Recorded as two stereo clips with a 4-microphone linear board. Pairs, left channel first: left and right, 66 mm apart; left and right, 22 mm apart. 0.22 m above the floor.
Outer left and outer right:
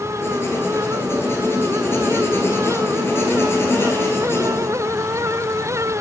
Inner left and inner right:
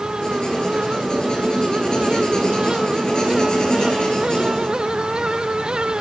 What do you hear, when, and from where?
0.2 s writing: 40° left (ahead or behind), 2.5 m